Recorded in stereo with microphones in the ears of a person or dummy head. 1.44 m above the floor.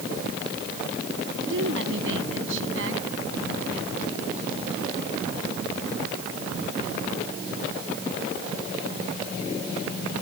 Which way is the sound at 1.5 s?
75° right (ahead or behind).